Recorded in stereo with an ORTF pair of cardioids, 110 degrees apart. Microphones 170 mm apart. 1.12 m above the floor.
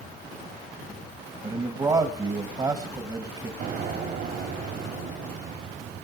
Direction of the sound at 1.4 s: 25° right.